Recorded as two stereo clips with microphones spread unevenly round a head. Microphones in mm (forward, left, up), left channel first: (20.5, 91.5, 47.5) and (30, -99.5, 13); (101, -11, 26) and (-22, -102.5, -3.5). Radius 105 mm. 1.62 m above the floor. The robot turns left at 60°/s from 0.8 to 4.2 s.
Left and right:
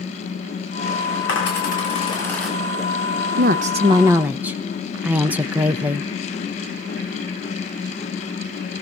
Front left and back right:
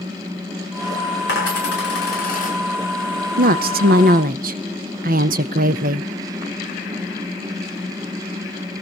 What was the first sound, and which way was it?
A dropped coin, 75° left.